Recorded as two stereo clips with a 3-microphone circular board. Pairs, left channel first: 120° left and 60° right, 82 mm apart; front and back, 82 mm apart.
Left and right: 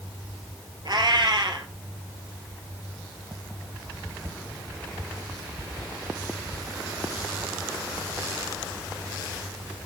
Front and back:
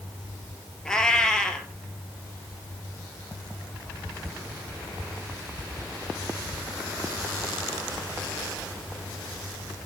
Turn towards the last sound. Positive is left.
turn(degrees=-80)